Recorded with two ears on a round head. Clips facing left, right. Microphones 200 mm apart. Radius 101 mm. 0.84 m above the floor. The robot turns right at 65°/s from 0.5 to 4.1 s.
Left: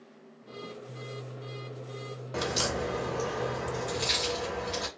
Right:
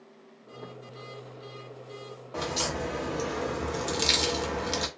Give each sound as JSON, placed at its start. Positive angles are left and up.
{"t": 2.3, "sound": "a crack", "azimuth_deg": 150, "distance_m": 0.8}